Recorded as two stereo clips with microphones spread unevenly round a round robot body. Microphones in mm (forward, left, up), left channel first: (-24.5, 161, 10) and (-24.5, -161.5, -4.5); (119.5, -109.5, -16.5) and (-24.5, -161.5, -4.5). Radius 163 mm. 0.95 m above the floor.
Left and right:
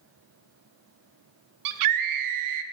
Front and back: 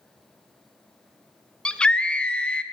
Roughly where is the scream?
Ahead right.